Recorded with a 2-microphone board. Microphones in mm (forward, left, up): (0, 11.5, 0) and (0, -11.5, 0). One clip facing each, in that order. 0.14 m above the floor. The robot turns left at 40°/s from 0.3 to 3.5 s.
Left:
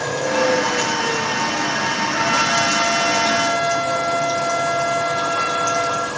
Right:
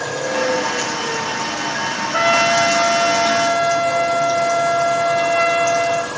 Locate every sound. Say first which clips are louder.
2.1 s a trumpet: right 5 dB; 55° right, 4 m; by 6.1 s 110° right, 4 m